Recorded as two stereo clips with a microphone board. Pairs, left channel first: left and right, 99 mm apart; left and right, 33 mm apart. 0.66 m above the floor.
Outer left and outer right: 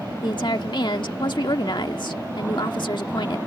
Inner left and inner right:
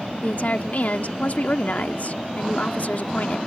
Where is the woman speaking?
50° left (ahead or behind).